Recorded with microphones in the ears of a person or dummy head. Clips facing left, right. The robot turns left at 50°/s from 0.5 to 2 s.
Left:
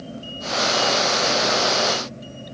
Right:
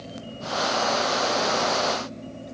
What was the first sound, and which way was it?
Only background noise.